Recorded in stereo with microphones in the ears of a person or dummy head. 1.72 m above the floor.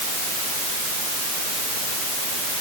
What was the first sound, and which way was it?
Only background noise.